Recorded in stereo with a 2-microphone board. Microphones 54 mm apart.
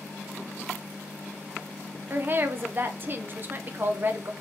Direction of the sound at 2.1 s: 40° right (ahead or behind).